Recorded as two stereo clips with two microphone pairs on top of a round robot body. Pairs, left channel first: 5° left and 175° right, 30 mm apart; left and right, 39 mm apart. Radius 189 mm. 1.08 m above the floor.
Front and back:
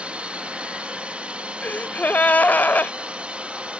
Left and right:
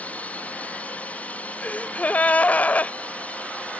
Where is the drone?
140° left.